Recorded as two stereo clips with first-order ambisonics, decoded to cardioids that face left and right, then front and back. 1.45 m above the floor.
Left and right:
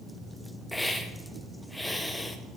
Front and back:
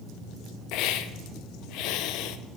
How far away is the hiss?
About 0.5 m.